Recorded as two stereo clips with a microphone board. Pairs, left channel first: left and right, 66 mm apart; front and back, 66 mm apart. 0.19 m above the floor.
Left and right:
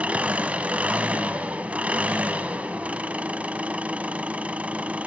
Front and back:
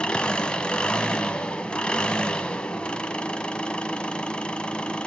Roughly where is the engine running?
Ahead right.